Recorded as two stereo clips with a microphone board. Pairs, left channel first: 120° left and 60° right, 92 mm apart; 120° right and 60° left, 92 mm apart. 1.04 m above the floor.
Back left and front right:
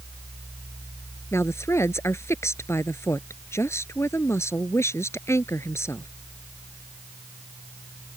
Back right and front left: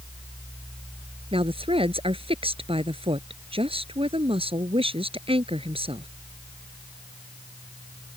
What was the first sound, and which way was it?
A woman speaking, 60° left.